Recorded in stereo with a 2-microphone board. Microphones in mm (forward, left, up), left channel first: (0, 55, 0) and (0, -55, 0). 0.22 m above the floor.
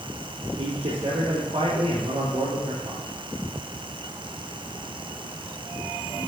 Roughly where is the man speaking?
Right.